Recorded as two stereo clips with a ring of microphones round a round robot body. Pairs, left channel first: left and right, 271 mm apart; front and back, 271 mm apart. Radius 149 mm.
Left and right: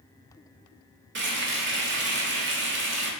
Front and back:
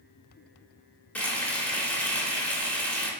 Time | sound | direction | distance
1.1 | frying | 85° right | 1.0 m